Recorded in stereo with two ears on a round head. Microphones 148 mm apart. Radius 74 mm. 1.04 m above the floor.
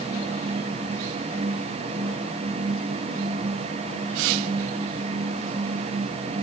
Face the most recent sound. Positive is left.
No sound to turn to.